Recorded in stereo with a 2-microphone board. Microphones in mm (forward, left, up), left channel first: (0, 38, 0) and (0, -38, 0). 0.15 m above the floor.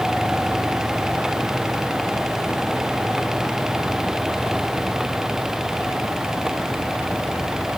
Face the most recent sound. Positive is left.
No sound to turn to.